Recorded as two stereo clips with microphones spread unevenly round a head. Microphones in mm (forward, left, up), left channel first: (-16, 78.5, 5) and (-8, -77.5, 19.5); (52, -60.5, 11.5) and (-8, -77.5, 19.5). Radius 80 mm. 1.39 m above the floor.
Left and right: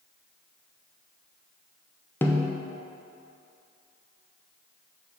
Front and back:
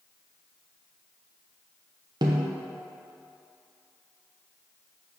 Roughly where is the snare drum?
Behind.